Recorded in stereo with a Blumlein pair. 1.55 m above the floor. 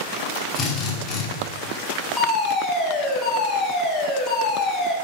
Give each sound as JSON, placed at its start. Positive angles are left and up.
{"t": 0.6, "sound": "a drill", "azimuth_deg": 25, "distance_m": 5.0}
{"t": 2.2, "sound": "a fire alarm", "azimuth_deg": 15, "distance_m": 4.0}